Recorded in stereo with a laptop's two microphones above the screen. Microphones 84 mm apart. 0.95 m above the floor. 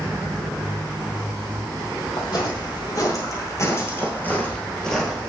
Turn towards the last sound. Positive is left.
turn(degrees=0)  # may be behind; listen again after turning